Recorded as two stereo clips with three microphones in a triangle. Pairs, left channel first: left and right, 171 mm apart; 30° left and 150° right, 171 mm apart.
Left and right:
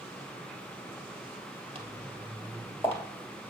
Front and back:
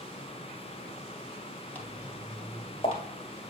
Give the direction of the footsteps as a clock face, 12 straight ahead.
3 o'clock.